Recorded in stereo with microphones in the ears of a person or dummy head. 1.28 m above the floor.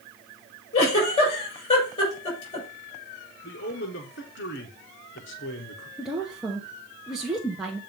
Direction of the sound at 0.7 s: 35° left (ahead or behind).